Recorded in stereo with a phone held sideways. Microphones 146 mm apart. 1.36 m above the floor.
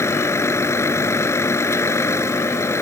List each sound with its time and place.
0.0 s a vehicle: 20° left (ahead or behind)